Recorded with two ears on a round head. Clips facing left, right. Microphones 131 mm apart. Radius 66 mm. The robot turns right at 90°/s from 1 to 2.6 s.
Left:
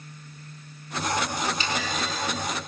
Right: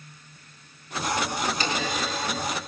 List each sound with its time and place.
1.6 s a clunk: 40° right, 4 m; by 2.2 s 15° left, 4 m